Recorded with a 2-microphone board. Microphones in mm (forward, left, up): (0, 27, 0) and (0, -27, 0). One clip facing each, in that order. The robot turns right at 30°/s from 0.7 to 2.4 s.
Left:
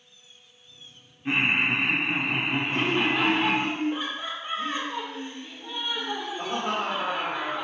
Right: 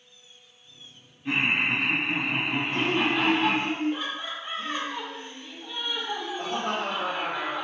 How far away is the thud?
I don't hear a thud.